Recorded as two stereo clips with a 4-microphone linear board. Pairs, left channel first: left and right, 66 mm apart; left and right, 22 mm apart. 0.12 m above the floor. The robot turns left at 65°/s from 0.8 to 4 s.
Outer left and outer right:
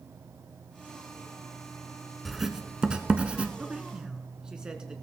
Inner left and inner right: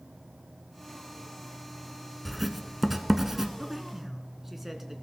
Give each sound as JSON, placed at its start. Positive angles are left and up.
{"t": 2.2, "sound": "writing", "side_deg": 0, "distance_m": 0.8}
{"t": 3.6, "sound": "a man speaking", "side_deg": -20, "distance_m": 1.1}